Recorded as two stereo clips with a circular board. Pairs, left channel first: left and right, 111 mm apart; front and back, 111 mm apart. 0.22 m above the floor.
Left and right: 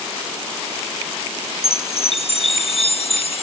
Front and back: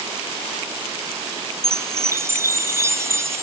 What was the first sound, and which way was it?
A chime, 115° left.